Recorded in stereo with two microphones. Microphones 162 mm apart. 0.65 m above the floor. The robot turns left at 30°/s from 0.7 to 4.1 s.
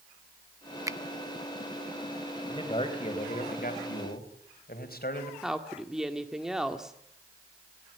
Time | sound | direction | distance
0.9 | a finger snap | 20° right (ahead or behind) | 0.5 m
2.5 | a man speaking | 150° left | 3.5 m
5.4 | a woman speaking | 5° right (ahead or behind) | 1.6 m